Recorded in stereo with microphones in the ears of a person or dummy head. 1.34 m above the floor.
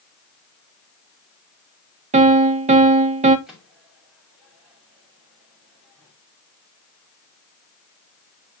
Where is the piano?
35° right (ahead or behind), 0.7 m.